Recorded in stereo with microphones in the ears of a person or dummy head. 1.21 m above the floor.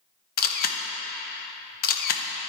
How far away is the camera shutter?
About 0.6 m.